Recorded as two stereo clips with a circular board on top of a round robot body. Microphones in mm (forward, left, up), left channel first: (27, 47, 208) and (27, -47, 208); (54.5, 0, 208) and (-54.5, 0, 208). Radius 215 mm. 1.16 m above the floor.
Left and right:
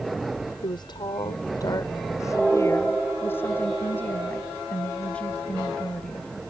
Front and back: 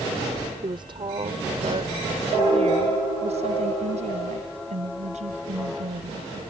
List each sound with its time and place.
0.6 s a woman speaking: 130° left; by 6.4 s 170° left